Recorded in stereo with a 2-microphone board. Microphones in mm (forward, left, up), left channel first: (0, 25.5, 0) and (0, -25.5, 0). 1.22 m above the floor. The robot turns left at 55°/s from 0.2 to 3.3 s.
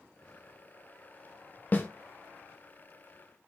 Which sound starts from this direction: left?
A snare drum, at 1.7 s.